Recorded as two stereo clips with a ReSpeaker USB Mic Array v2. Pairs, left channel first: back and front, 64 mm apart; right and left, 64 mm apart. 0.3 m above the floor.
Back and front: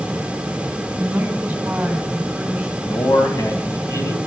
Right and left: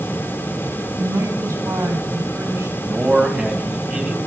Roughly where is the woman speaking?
Ahead left.